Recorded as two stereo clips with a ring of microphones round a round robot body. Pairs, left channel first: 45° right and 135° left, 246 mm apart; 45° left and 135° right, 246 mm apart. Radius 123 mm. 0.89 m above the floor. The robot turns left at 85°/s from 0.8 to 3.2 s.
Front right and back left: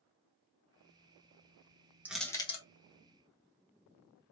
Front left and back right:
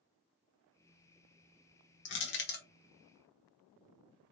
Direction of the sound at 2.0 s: 55° left.